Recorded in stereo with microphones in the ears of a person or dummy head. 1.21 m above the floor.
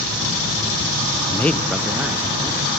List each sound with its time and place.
1.3 s a man speaking: 15° left (ahead or behind), 0.5 m; by 2.7 s 15° right (ahead or behind), 2 m